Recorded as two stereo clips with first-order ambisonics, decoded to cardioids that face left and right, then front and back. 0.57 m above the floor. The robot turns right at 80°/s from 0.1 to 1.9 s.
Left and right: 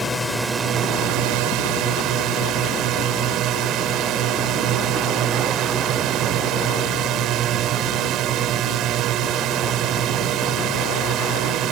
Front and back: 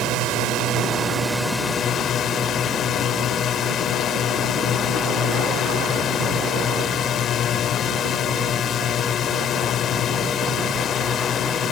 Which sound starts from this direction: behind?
A drone, at 0.0 s.